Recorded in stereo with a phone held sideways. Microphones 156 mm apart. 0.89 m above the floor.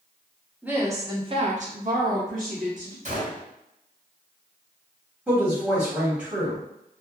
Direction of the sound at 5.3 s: 5° right (ahead or behind).